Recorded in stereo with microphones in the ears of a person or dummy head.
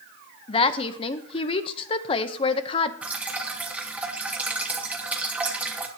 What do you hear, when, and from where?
0.5 s a woman speaking: 35° left (ahead or behind), 0.8 m
3.0 s dripping: 15° right (ahead or behind), 1.1 m